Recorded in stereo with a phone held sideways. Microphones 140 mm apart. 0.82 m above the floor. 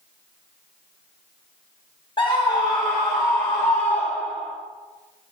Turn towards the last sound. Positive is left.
turn(degrees=20)  # may be behind; listen again after turning